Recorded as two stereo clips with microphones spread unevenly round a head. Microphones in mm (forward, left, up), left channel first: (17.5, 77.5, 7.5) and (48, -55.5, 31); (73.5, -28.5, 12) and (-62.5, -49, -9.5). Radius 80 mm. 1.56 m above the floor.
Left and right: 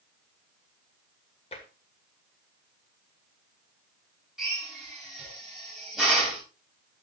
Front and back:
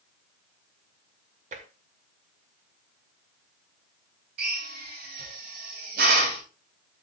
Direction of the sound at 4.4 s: 165° right.